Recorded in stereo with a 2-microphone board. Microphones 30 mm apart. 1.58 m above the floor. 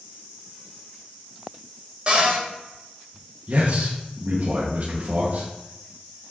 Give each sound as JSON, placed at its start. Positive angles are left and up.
{"t": 2.1, "sound": "a cupboard door", "side_deg": -40, "distance_m": 3.0}
{"t": 3.5, "sound": "a man speaking", "side_deg": -55, "distance_m": 1.3}